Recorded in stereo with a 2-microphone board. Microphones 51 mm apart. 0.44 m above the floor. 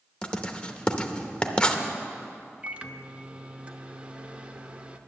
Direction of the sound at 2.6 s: 25° right (ahead or behind).